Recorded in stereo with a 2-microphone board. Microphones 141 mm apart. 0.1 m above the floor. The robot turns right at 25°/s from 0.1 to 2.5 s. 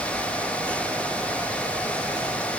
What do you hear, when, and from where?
Only background noise.